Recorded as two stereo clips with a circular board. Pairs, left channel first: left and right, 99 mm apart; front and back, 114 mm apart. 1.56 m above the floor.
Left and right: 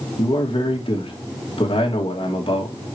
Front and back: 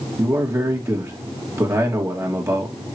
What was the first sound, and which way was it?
A man speaking, 115° left.